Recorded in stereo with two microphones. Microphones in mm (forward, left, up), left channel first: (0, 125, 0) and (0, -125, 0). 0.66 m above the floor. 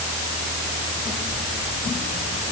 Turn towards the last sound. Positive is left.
No sound to turn to.